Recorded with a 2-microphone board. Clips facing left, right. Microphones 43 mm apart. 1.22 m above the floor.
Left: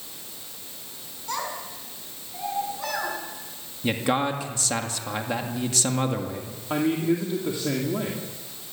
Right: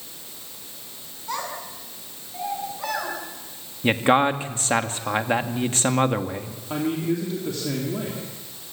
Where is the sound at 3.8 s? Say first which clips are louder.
Right 6 dB; 40° right (ahead or behind), 1.8 m.